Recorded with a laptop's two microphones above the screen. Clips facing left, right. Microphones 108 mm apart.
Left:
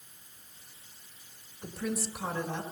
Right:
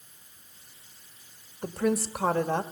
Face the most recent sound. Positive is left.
turn(degrees=-60)  # may be behind; listen again after turning